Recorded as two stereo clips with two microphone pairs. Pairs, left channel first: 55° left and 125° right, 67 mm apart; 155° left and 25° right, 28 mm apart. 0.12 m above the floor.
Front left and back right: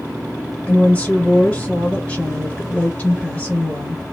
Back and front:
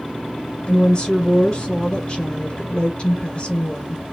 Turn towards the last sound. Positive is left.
turn(degrees=110)